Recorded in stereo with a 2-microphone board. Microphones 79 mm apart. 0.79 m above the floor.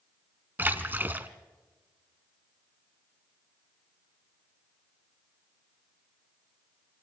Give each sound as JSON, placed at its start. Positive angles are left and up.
{"t": 0.6, "sound": "a splash", "side_deg": -25, "distance_m": 1.3}